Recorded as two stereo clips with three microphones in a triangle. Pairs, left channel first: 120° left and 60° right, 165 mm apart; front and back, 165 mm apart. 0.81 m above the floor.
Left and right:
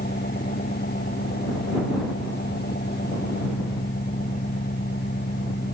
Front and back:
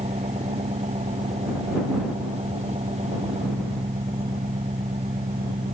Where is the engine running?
130° left.